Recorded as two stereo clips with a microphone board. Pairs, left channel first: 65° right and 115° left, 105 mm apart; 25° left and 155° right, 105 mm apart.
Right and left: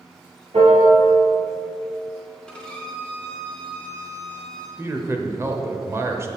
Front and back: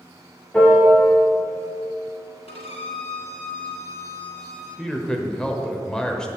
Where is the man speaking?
95° left, 0.9 m.